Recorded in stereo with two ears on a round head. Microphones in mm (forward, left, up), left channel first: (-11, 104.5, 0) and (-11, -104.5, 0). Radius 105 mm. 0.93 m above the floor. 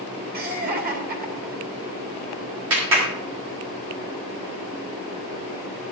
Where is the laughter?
40° right (ahead or behind), 2.5 m.